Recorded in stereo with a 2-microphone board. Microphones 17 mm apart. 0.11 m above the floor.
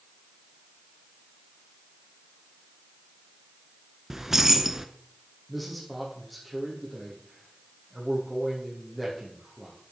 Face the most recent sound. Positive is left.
turn(degrees=5)  # may be behind; listen again after turning